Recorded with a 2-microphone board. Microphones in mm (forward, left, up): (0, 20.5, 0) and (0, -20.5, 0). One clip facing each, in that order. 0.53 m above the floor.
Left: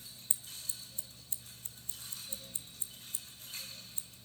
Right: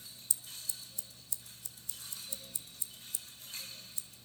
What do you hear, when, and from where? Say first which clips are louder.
0.3 s scissors: even; 40° left (ahead or behind), 1.4 m